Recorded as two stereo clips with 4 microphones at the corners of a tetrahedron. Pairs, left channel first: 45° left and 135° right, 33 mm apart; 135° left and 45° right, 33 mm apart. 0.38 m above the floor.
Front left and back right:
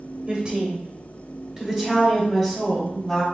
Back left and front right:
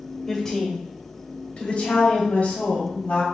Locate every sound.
0.3 s a woman speaking: 135° right, 1.4 m; by 3.2 s 115° left, 2 m